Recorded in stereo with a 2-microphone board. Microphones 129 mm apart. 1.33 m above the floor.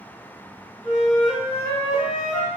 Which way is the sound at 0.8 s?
65° left (ahead or behind).